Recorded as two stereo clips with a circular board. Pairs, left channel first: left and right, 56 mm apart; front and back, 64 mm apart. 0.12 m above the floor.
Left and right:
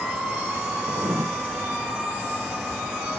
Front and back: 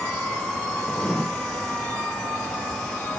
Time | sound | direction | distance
0.9 | writing | 80° right | 1.2 m